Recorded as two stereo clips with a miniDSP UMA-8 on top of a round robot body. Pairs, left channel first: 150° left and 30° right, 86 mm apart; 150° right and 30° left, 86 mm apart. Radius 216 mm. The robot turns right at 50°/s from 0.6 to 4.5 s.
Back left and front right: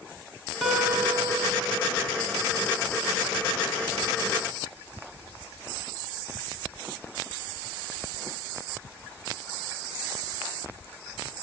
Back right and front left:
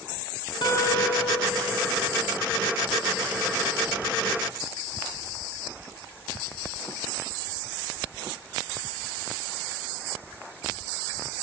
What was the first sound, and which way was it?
A guitar, 120° right.